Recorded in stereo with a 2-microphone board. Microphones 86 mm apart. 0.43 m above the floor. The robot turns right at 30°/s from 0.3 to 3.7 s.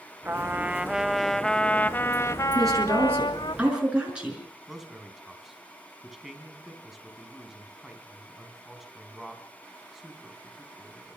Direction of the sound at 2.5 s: 45° right.